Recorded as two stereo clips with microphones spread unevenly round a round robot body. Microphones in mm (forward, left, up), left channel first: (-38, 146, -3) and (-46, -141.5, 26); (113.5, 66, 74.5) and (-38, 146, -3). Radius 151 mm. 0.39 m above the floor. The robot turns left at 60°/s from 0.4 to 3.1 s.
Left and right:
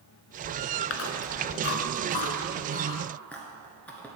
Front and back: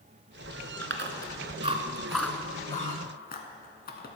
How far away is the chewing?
About 1.0 m.